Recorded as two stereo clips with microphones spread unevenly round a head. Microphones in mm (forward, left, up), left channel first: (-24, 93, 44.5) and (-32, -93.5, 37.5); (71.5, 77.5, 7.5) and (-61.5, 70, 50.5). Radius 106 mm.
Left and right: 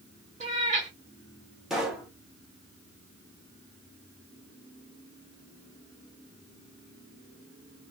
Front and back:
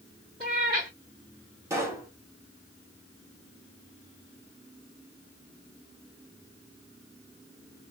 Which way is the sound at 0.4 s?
135° right.